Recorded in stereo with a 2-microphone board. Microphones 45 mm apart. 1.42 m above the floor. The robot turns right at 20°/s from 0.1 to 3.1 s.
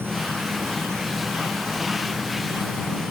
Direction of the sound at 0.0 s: 120° right.